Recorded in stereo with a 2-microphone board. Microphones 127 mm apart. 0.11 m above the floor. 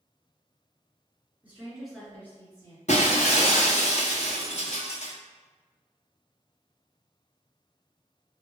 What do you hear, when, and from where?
1.4 s a woman speaking: 15° right (ahead or behind), 1.6 m; by 2.8 s 30° left (ahead or behind), 2 m
2.9 s breaking glass: 65° left (ahead or behind), 1.3 m